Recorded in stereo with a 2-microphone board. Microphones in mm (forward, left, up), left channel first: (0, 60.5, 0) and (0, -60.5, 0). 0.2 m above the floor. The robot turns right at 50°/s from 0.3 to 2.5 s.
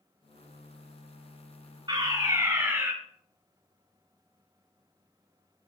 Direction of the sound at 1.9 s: 60° right.